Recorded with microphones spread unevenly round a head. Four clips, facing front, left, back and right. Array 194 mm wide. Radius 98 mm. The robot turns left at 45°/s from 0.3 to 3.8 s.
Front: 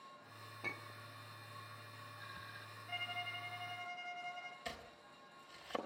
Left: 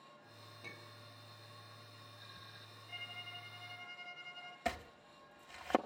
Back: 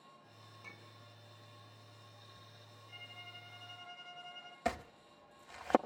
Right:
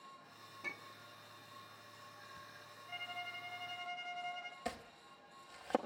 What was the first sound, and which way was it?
A clink, 10° right.